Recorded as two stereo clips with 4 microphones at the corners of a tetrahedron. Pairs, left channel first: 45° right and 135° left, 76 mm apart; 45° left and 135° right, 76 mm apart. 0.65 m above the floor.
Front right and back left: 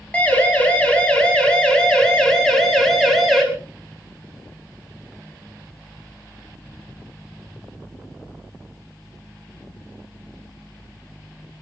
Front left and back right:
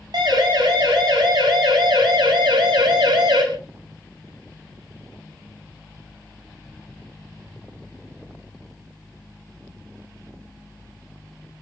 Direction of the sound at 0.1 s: 115° right.